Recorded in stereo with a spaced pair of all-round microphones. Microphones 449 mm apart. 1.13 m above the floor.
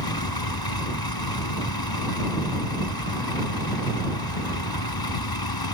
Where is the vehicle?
55° left (ahead or behind).